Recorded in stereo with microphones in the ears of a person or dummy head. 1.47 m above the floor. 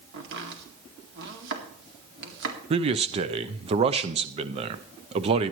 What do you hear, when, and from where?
0.1 s chopping: 65° right (ahead or behind), 2 m
2.7 s a man speaking: 30° right (ahead or behind), 0.6 m